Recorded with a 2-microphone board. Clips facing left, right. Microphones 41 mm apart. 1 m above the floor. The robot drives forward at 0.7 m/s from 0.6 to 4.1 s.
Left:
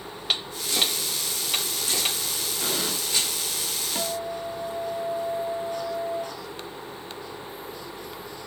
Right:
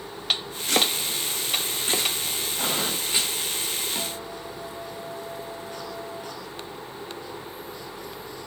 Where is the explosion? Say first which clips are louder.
Right 2 dB; 50° right (ahead or behind), 4.5 m; by 3.0 s 55° right (ahead or behind), 4.5 m.